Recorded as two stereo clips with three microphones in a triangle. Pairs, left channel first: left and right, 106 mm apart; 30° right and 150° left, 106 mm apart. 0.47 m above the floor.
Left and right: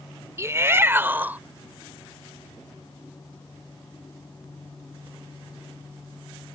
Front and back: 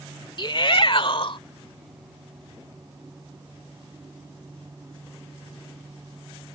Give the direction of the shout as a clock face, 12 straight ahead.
1 o'clock.